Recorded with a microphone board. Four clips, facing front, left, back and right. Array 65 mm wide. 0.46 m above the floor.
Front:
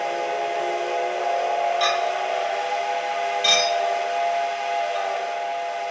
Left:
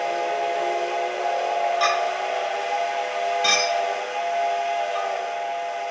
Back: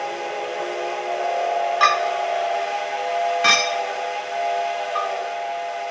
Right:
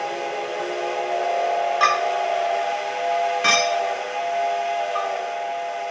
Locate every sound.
1.8 s a clink: 145° right, 2 m